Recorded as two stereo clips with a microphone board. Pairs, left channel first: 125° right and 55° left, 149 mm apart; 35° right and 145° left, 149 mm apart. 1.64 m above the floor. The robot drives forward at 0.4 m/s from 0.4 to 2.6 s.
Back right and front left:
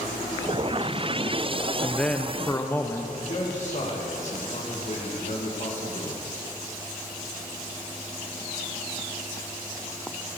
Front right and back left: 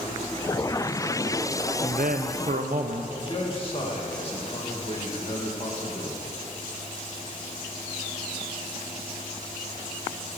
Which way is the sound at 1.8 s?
145° left.